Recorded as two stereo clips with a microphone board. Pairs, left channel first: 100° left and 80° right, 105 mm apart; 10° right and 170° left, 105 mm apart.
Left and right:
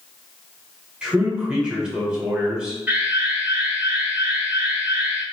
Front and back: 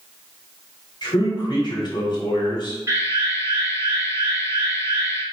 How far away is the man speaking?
About 1.5 m.